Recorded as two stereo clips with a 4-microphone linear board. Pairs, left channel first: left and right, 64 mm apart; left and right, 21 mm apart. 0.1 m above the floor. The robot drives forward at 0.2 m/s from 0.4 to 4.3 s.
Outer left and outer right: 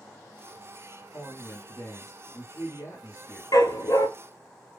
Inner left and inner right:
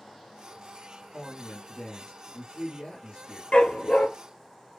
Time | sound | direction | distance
1.1 | a woman speaking | 40° left (ahead or behind) | 1.6 m
3.5 | a dog barking | 60° left (ahead or behind) | 0.6 m